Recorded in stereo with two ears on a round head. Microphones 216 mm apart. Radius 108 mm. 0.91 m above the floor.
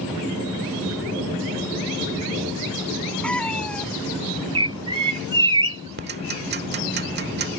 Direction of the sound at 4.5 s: 20° right (ahead or behind).